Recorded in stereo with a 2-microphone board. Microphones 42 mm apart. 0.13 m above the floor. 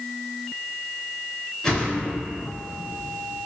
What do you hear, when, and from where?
1.6 s a whoosh: 10° left (ahead or behind), 1.6 m